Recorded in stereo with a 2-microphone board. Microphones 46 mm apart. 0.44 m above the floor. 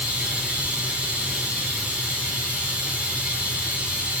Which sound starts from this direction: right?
Running water, at 0.0 s.